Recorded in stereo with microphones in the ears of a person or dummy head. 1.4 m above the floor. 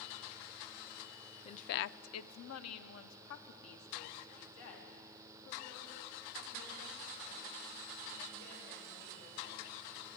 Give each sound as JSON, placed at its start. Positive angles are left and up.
{"t": 1.4, "sound": "a woman speaking", "side_deg": 30, "distance_m": 0.5}